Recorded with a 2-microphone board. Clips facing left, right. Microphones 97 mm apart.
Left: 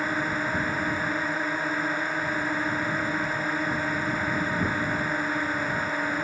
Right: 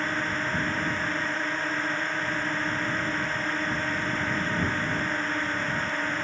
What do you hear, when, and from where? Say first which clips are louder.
0.0 s a drone: left 2 dB; 10° left (ahead or behind)